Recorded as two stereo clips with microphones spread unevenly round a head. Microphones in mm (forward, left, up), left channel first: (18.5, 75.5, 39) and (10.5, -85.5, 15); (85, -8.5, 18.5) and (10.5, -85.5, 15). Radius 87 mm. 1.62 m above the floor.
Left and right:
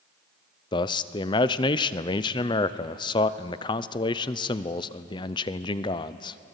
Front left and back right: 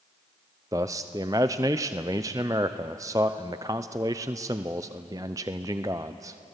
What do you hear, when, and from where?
0.7 s a man speaking: 155° left, 0.6 m